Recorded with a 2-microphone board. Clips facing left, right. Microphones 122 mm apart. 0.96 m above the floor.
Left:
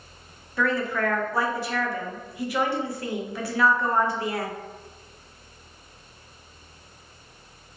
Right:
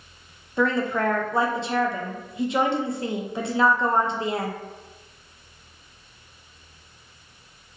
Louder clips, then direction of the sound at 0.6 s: Right 2 dB; 20° right (ahead or behind).